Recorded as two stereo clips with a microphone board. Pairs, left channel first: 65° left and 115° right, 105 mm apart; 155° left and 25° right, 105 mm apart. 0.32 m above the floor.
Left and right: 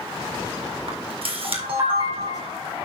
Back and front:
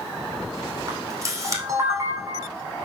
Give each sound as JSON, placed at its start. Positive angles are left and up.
{"t": 0.9, "sound": "a camera shutter", "azimuth_deg": -80, "distance_m": 2.5}